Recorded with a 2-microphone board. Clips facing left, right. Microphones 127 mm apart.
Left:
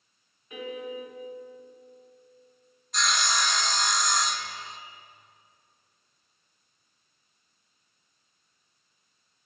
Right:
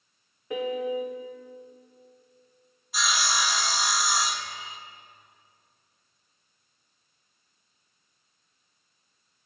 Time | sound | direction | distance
0.5 | a piano | 85° right | 1.6 m
2.9 | sawing | 5° right (ahead or behind) | 0.8 m